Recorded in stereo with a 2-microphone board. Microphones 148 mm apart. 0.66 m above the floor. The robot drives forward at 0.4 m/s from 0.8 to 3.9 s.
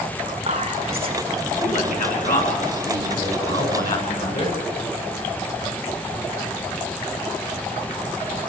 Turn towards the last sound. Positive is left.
turn(degrees=70)  # may be behind; listen again after turning